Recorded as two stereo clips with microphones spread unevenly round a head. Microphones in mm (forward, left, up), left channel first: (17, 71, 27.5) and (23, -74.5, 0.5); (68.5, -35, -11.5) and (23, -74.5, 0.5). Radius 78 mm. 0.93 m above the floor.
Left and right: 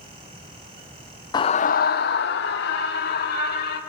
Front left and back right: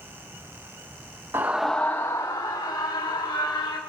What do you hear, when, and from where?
1.3 s a scream: 155° left, 0.6 m; by 3.8 s 80° left, 2.5 m